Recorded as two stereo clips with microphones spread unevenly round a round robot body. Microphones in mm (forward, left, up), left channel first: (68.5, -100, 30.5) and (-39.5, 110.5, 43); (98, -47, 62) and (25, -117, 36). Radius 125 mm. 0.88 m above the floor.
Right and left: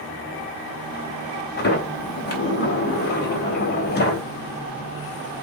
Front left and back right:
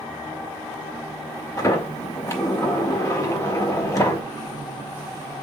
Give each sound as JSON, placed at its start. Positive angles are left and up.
{"t": 1.6, "sound": "a sliding door", "azimuth_deg": -15, "distance_m": 3.5}